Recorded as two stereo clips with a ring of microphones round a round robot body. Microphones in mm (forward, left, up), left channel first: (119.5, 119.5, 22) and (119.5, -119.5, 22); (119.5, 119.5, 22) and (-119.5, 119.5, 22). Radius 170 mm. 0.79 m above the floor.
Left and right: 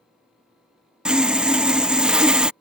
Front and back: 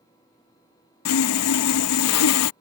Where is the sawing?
5° right.